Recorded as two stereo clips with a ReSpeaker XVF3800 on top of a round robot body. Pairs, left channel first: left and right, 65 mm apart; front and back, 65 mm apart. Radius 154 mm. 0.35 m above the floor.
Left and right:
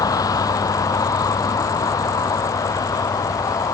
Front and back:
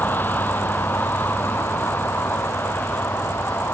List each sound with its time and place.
0.0 s a vehicle: 65° left